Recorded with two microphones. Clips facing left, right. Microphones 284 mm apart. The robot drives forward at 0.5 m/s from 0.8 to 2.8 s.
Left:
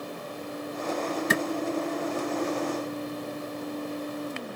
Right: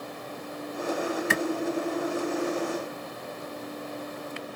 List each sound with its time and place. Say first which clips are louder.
1.3 s a clap: left 4 dB; 45° left (ahead or behind), 1.8 m